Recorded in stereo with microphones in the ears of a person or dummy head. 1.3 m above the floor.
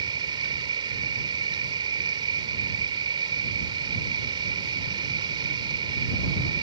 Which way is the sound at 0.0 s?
25° right (ahead or behind).